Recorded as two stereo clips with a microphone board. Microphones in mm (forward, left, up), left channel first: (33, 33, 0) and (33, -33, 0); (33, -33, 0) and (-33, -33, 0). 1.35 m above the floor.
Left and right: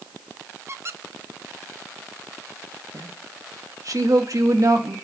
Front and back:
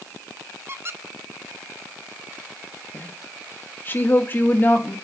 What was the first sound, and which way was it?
A squeak, 130° right.